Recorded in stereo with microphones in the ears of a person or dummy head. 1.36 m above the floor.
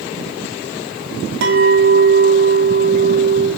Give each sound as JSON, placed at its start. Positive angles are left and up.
{"t": 1.4, "sound": "a clink", "side_deg": -70, "distance_m": 2.5}